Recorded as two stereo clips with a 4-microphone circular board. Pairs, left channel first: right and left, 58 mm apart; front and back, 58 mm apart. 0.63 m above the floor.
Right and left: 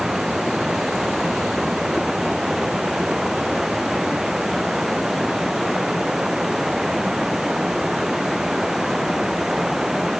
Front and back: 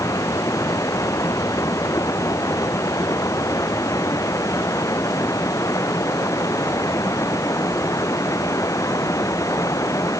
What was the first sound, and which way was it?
Running water, 5° left.